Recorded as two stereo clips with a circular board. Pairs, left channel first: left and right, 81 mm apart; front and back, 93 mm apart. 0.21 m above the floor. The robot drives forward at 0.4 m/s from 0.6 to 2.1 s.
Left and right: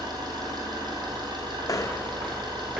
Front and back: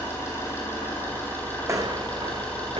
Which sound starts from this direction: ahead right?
An engine running, at 0.0 s.